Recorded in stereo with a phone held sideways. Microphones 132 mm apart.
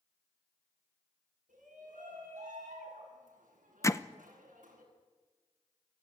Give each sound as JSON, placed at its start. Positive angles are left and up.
{"t": 1.5, "sound": "a shout", "side_deg": -90, "distance_m": 8.5}
{"t": 3.8, "sound": "hammering", "side_deg": 20, "distance_m": 0.7}